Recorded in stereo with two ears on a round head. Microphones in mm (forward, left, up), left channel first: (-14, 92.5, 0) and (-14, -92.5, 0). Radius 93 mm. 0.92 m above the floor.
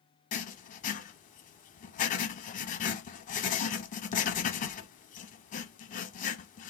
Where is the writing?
40° left (ahead or behind), 1.0 m.